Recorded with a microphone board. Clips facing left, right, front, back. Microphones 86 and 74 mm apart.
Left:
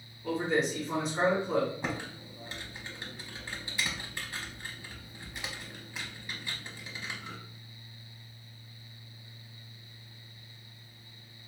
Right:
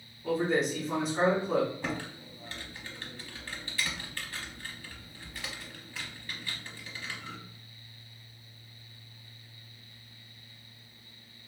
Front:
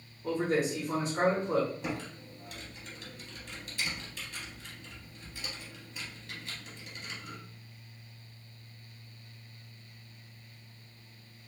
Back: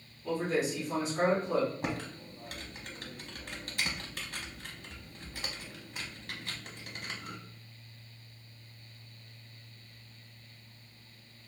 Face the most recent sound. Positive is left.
turn(degrees=160)